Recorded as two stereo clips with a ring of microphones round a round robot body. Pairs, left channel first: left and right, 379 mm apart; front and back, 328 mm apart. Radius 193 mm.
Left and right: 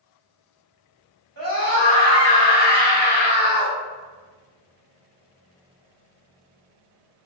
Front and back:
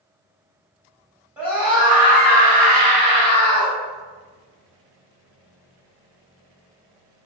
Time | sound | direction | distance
1.4 | a scream | 95° right | 1.5 m